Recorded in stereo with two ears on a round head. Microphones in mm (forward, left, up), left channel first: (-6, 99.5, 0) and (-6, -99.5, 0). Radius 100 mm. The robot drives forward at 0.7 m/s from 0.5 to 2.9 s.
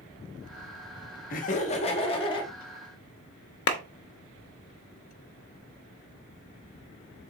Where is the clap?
55° left (ahead or behind), 0.9 m.